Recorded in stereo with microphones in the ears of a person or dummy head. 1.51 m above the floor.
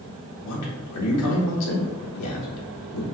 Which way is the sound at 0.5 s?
85° left.